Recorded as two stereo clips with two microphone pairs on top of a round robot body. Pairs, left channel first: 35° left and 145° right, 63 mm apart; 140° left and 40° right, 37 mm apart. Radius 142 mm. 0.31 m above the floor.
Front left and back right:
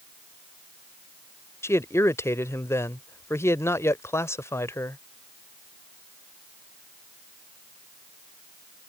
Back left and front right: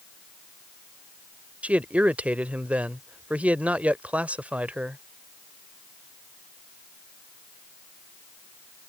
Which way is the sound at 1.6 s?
10° left.